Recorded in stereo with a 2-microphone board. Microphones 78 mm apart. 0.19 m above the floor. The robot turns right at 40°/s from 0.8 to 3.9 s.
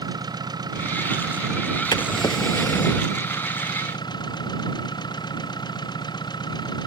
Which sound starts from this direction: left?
A drawer, at 1.9 s.